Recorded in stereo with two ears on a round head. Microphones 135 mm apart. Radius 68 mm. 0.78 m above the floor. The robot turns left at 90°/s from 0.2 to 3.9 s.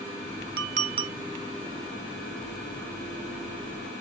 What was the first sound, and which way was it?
A clink, 105° right.